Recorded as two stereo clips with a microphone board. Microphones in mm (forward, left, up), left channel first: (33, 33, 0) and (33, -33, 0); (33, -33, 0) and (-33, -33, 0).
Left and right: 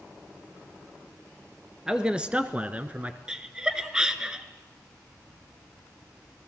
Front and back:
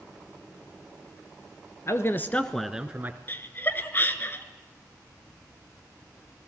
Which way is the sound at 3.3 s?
20° right.